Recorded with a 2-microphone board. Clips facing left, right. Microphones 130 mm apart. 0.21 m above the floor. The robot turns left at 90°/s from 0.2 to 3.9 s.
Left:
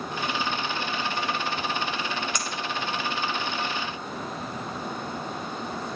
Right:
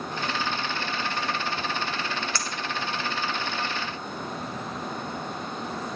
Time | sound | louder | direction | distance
2.4 | a clink | left 1 dB | 15° left (ahead or behind) | 1.5 m